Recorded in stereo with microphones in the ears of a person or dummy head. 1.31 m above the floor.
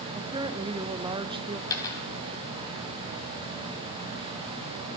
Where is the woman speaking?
25° right (ahead or behind), 0.9 m.